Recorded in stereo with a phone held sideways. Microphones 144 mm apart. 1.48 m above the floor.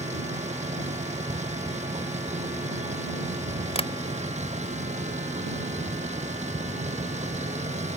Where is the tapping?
45° left (ahead or behind).